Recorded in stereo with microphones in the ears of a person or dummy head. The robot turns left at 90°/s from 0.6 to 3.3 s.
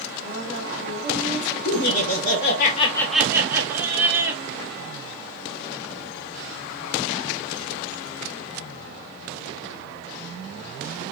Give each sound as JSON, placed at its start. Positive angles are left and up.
{"t": 0.2, "sound": "a woman speaking", "azimuth_deg": -75, "distance_m": 2.0}
{"t": 1.6, "sound": "laughter", "azimuth_deg": 135, "distance_m": 1.5}